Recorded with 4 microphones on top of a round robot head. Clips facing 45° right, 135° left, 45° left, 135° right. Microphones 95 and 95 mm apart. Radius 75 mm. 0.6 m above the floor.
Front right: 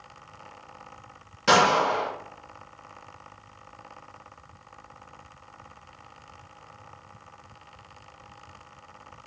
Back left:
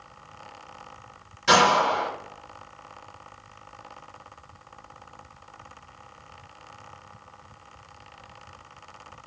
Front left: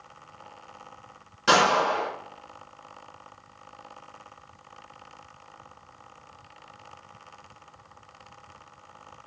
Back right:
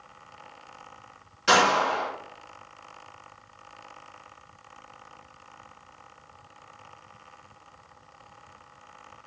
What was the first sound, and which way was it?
A gunshot, 10° right.